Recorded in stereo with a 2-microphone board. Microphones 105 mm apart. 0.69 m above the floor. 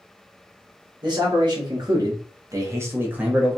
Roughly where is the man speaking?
Right.